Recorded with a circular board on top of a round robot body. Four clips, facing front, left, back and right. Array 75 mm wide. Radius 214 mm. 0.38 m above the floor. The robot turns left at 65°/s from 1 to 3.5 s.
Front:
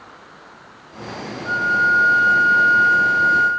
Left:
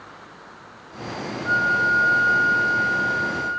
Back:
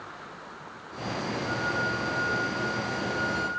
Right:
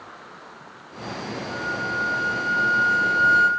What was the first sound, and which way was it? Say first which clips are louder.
A flute: left 10 dB, front 14 dB; 55° left.